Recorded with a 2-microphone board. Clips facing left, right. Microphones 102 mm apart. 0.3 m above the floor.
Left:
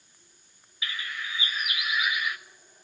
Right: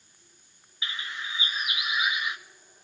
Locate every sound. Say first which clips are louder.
0.8 s a bird: left 1 dB; 25° right (ahead or behind), 0.6 m